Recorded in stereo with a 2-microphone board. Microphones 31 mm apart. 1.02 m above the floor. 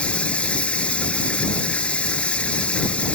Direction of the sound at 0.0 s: 35° left (ahead or behind).